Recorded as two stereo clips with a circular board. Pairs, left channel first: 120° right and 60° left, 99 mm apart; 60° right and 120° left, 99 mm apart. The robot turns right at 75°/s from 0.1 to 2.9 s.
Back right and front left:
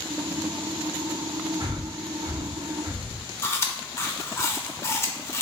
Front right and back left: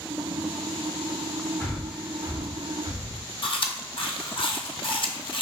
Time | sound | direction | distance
1.6 | breathing | 10° left | 0.7 m
3.4 | chewing | 60° right | 0.6 m